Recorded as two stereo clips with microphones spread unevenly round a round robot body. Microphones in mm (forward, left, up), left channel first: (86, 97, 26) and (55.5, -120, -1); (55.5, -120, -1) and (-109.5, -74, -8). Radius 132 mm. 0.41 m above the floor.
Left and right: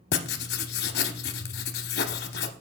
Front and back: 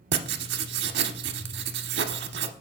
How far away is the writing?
About 0.5 m.